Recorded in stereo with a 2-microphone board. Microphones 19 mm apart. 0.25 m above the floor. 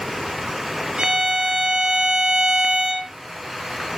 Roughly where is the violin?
Right.